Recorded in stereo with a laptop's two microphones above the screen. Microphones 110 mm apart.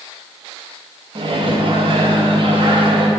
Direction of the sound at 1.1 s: 50° right (ahead or behind).